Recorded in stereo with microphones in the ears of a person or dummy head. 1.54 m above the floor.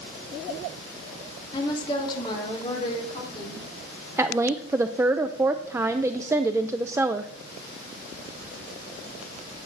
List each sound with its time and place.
1.5 s a woman speaking: 35° left (ahead or behind), 3 m
4.2 s a woman speaking: 10° right (ahead or behind), 0.5 m